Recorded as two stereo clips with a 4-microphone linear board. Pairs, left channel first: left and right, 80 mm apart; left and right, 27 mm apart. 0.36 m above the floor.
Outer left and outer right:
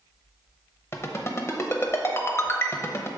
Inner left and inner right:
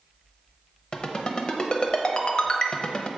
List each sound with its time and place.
0.9 s a ringtone: 35° left (ahead or behind), 0.8 m